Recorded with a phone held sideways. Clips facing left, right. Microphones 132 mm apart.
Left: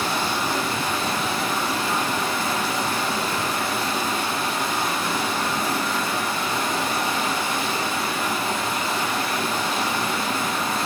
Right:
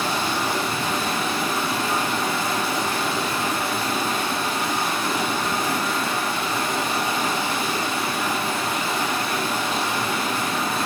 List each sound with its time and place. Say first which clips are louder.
0.0 s running water: even; 80° right, 1.5 m